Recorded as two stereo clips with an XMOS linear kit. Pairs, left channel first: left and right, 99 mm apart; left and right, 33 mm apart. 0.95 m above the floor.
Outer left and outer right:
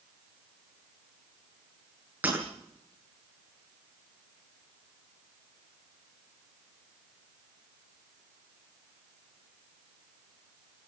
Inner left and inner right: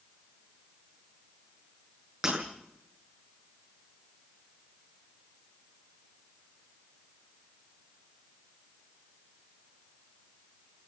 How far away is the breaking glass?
About 10 m.